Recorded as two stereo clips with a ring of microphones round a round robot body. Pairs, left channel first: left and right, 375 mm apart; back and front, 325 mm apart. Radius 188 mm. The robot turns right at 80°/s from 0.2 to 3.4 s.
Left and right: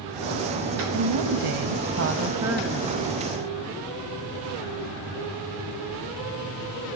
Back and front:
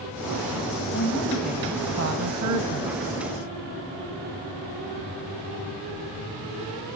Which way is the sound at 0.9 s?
130° right.